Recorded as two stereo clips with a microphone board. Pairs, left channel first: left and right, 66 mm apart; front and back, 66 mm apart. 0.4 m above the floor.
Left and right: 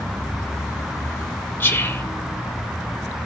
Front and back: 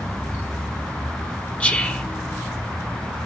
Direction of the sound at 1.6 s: 55° left.